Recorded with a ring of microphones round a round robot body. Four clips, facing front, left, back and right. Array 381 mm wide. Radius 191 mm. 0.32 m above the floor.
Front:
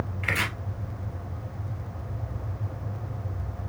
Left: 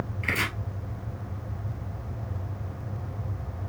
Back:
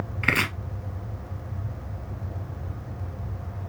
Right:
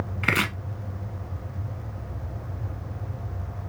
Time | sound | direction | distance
0.2 | chopping | 130° right | 1.0 m